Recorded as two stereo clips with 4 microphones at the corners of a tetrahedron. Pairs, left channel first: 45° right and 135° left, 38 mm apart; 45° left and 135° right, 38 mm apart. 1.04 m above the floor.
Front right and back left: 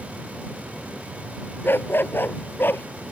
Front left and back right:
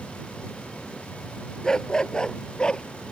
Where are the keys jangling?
No keys jangling in this recording.